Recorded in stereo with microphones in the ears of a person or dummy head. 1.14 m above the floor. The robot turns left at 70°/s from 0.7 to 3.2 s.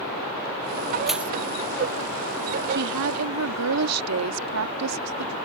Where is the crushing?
Centre (ahead or behind); by 1.3 s 15° right (ahead or behind).